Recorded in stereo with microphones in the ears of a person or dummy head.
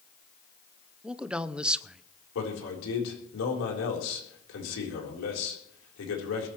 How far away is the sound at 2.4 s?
About 4 m.